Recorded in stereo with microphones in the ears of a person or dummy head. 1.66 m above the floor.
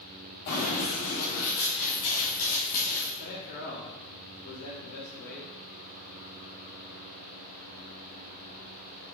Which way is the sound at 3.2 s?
50° left (ahead or behind).